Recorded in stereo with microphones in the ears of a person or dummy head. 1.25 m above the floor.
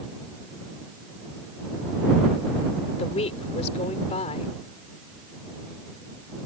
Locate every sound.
3.0 s a woman speaking: 35° left (ahead or behind)